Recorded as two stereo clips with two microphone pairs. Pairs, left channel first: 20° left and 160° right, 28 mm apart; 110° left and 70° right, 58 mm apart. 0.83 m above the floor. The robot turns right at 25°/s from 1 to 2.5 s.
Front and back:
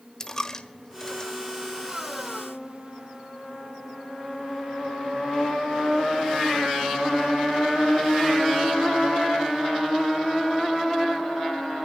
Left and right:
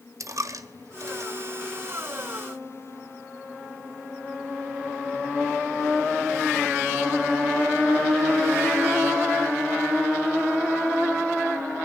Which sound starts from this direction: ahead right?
A dropped coin, at 0.2 s.